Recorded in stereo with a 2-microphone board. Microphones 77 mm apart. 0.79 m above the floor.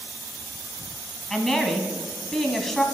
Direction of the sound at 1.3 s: Centre (ahead or behind).